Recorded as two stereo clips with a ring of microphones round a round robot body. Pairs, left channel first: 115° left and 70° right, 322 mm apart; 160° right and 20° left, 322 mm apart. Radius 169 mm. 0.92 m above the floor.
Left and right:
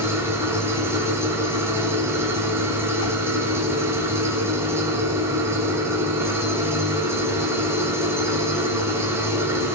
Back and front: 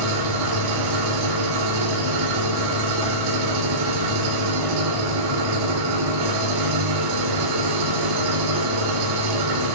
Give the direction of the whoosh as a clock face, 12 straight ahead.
8 o'clock.